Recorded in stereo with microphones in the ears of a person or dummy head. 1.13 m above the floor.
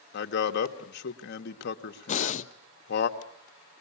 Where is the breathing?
40° left (ahead or behind), 0.6 m.